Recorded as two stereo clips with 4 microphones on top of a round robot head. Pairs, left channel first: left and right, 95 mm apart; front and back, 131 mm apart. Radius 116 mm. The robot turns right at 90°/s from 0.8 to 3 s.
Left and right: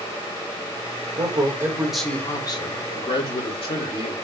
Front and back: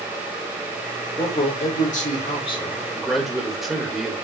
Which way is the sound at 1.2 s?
70° right.